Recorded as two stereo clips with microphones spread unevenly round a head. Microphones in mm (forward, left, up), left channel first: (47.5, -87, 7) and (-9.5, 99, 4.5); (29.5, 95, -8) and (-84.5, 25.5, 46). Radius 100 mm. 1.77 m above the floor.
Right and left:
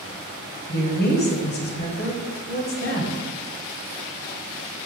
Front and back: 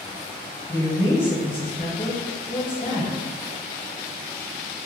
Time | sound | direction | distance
0.7 | a woman speaking | 45° right | 0.7 m